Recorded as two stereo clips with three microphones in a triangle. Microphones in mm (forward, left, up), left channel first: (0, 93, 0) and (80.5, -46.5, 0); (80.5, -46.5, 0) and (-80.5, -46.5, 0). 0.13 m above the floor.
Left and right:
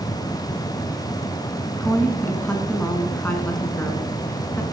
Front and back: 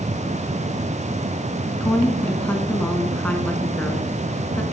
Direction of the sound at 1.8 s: 60° left.